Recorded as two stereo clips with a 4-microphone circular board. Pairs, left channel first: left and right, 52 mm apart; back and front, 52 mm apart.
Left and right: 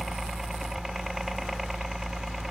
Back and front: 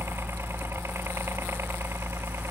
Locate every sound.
0.0 s a helicopter: 5° right